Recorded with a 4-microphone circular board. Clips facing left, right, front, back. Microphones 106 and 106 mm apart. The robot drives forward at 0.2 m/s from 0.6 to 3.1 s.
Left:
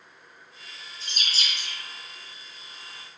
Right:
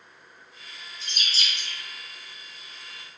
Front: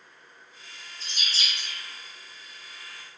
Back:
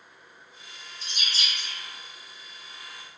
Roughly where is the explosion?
I don't hear an explosion.